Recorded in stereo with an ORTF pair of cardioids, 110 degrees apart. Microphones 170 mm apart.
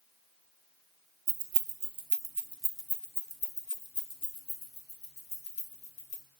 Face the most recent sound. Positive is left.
turn(degrees=40)